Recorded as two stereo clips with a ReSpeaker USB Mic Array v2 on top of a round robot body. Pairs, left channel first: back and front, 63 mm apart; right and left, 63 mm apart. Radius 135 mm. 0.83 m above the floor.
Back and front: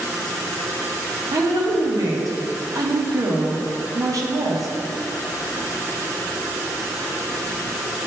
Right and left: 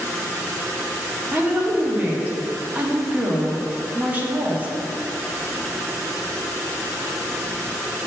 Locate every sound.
1.3 s a woman speaking: 25° left, 1.4 m